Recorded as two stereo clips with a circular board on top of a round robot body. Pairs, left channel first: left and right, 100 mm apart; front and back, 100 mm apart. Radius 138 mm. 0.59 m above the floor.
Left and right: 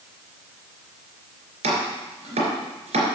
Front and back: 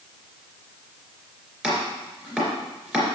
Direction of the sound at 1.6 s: 95° right.